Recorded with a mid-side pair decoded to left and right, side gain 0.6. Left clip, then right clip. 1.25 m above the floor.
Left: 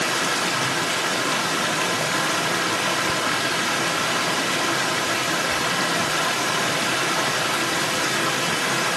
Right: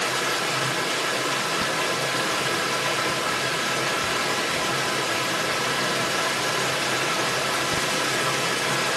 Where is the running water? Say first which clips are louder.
Left 2 dB; 30° left, 2 m.